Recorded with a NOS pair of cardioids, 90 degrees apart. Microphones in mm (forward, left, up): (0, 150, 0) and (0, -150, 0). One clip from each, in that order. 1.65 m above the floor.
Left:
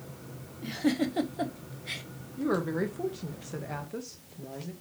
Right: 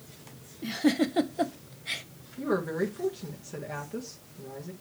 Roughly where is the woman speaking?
Ahead.